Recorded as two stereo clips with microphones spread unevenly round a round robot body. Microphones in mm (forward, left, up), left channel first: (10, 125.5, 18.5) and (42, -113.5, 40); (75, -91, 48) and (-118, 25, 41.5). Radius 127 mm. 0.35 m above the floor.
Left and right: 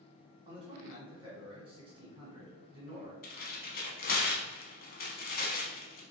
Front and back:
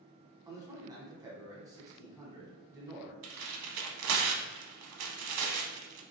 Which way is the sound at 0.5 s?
145° right.